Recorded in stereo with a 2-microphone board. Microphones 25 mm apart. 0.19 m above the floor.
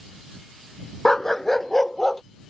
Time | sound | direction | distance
1.1 | a dog barking | 20° left (ahead or behind) | ?